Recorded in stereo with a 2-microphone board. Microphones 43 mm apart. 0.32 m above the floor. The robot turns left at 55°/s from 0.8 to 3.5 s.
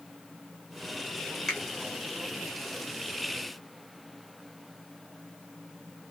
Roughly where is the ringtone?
No ringtone in this recording.